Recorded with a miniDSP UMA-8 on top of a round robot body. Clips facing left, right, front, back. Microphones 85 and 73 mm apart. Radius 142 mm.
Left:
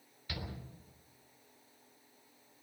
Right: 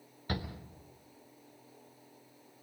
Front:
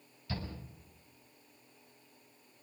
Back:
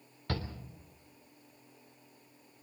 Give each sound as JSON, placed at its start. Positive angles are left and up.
{"t": 0.3, "sound": "a shout", "azimuth_deg": -145, "distance_m": 3.5}